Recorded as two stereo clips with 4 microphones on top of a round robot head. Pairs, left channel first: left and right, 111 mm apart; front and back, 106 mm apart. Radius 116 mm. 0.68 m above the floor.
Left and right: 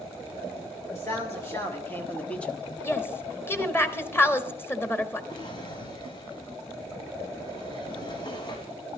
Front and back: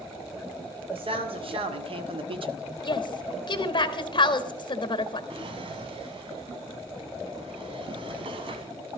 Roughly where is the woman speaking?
Ahead left.